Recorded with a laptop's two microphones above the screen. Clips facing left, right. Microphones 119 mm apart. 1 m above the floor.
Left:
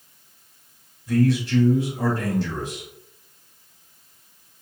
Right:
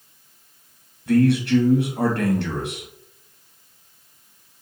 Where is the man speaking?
65° right (ahead or behind), 1.1 m.